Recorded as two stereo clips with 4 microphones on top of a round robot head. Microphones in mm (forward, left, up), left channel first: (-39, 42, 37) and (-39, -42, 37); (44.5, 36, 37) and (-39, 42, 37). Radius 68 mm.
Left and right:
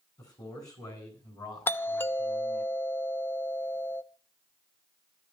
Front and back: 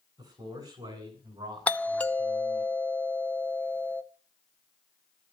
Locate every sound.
0.2 s a man speaking: 135° left, 10 m; by 2.7 s 130° left, 6.5 m
1.7 s a doorbell: 55° left, 0.8 m